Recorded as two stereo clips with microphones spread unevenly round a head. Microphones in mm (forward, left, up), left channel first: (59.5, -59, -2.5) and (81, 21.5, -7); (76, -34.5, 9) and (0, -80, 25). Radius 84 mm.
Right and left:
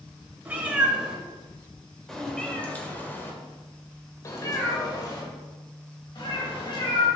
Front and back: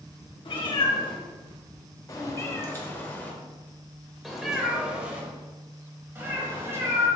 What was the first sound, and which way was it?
A cat meowing, 5° left.